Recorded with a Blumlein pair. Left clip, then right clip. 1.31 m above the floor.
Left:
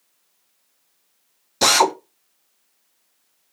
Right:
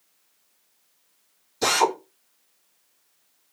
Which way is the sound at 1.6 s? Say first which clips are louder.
Left 5 dB; 45° left.